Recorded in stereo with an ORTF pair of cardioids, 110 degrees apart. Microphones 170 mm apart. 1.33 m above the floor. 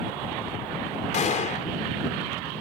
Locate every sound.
1.1 s a gunshot: 45° left